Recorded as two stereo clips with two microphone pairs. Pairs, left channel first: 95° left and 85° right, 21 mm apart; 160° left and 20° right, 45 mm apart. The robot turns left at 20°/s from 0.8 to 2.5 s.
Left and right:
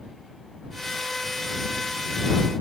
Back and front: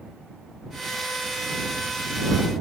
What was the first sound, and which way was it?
Only background noise.